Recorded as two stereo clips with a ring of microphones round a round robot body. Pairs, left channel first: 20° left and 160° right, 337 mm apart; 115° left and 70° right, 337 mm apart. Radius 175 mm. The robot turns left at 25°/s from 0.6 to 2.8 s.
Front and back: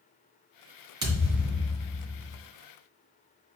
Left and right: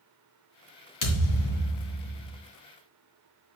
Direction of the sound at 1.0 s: 125° left.